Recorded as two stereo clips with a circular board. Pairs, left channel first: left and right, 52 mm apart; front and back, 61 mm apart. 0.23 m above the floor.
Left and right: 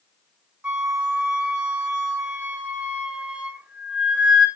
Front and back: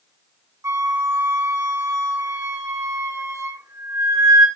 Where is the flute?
160° right, 3.5 m.